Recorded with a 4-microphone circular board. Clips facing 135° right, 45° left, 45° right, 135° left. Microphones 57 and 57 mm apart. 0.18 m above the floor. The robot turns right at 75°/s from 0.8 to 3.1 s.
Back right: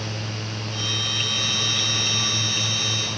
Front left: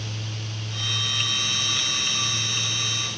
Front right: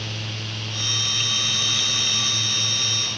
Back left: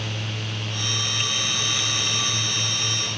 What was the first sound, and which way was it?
Only background noise.